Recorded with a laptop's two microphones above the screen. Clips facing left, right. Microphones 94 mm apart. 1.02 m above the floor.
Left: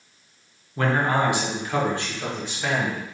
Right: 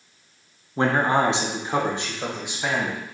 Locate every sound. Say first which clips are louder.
0.8 s a man speaking: right 2 dB; 25° right (ahead or behind), 0.6 m; by 3.0 s 15° right (ahead or behind), 1.7 m